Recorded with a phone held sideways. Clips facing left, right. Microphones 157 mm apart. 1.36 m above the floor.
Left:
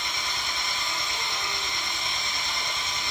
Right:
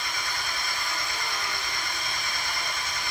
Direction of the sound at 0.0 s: 20° left (ahead or behind).